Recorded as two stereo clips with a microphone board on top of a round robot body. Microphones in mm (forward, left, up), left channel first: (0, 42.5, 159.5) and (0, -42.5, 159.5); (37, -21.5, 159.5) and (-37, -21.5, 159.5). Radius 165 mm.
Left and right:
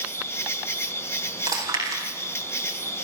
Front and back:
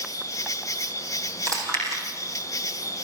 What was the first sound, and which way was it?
An insect, 35° left.